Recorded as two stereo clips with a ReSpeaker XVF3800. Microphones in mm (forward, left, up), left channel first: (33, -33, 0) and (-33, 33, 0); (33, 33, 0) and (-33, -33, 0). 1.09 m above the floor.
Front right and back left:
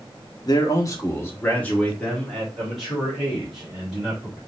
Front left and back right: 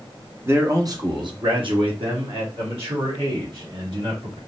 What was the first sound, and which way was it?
A man speaking, 75° right.